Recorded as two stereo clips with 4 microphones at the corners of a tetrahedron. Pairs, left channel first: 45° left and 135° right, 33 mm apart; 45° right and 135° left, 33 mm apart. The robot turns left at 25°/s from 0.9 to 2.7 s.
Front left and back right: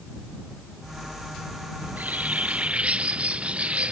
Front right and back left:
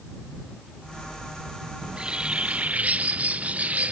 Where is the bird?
160° right; by 3.9 s 175° left.